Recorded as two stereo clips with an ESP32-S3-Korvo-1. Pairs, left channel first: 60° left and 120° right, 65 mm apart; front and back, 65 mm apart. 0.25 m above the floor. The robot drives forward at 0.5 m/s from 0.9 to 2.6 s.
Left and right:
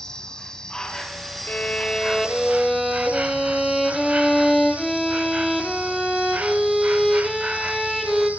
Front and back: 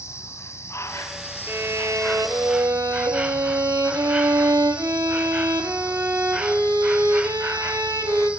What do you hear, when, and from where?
0.0 s an insect: 15° right, 0.9 m; by 8.4 s 135° right, 0.6 m
1.5 s a violin: 125° left, 0.7 m; by 8.3 s 150° left, 1.1 m